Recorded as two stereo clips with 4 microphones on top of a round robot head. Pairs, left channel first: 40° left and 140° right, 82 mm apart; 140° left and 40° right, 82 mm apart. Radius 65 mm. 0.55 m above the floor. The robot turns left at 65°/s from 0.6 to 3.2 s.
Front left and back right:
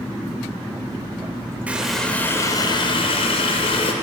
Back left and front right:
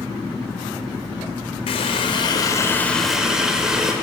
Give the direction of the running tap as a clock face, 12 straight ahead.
7 o'clock.